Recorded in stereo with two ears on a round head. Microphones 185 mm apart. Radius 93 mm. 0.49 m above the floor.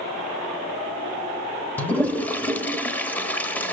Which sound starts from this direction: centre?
A toilet flushing, at 1.8 s.